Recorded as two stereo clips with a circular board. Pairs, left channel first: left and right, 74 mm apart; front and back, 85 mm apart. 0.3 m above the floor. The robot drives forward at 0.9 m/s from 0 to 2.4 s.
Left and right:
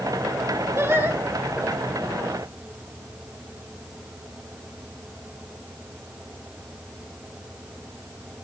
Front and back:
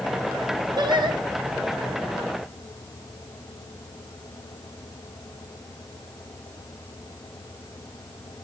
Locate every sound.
0.8 s singing: 145° right, 1.1 m; by 1.2 s 150° right, 1.5 m